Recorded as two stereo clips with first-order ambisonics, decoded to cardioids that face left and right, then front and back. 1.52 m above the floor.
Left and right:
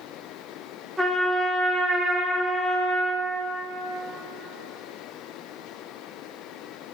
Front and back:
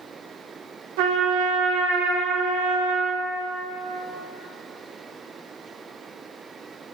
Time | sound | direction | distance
1.0 | a trumpet | 175° right | 1.4 m